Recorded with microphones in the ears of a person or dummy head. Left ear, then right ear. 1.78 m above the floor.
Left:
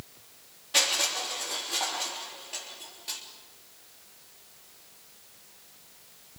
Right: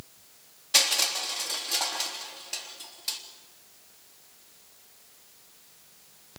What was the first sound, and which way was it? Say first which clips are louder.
Crushing: right 2 dB; 35° right (ahead or behind).